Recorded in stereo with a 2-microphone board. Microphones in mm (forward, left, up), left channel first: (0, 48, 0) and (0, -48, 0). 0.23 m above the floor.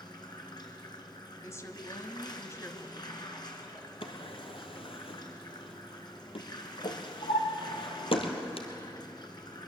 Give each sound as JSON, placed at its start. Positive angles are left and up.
{"t": 0.0, "sound": "running water", "side_deg": 50, "distance_m": 3.0}
{"t": 1.4, "sound": "a woman speaking", "side_deg": 30, "distance_m": 1.7}
{"t": 4.0, "sound": "a drawer", "side_deg": 75, "distance_m": 2.5}